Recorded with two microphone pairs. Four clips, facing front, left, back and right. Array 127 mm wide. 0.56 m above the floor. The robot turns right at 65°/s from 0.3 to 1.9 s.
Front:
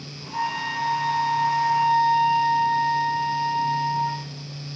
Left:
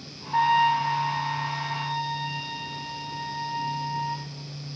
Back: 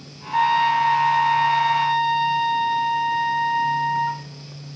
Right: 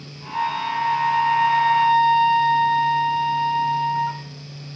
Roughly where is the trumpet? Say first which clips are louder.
Left 3 dB, back 9 dB; behind left.